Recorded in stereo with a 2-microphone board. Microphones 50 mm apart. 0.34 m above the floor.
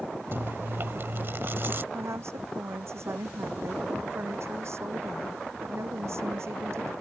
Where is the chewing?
50° right (ahead or behind).